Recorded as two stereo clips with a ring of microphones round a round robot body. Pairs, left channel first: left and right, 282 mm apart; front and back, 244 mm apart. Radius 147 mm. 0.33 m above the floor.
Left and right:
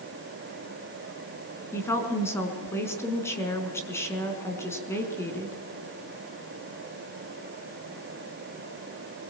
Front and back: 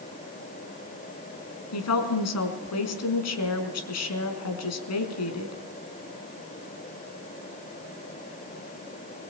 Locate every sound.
1.7 s a woman speaking: 10° left, 4.5 m